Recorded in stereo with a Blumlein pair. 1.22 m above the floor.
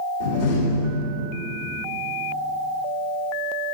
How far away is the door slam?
About 2.5 m.